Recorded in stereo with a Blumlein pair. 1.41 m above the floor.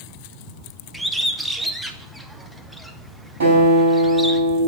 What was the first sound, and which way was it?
A bird, straight ahead.